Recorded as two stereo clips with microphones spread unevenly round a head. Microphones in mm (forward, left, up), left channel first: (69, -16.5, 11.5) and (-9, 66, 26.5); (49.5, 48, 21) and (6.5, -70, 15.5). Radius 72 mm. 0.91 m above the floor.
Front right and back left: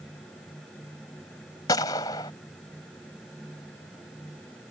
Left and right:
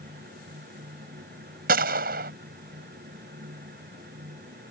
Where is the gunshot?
115° right.